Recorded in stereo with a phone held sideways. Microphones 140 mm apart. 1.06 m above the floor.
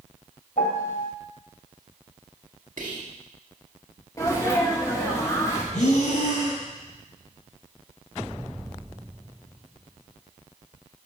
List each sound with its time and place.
0.6 s a piano: 75° left (ahead or behind), 2 m
2.8 s whispering: 85° right, 1.9 m
4.2 s a sneeze: 25° left (ahead or behind), 1.3 m
5.7 s breathing: 70° left (ahead or behind), 3.5 m